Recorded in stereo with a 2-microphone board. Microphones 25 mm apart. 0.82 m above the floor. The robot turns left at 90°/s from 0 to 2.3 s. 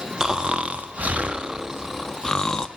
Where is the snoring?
25° right, 0.5 m; by 2.7 s 145° left, 0.5 m.